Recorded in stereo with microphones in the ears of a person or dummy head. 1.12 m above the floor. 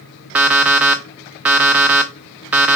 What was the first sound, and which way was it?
An alarm clock, 10° right (ahead or behind).